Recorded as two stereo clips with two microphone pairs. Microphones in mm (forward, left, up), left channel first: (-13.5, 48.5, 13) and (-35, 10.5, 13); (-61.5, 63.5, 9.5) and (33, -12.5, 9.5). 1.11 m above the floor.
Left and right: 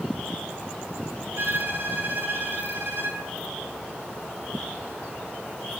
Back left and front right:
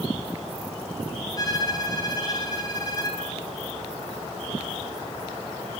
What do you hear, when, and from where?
1.4 s a violin: 160° right, 6.5 m